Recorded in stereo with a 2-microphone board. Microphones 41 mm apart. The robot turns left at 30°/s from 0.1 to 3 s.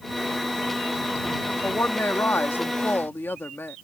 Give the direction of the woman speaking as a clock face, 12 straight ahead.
8 o'clock.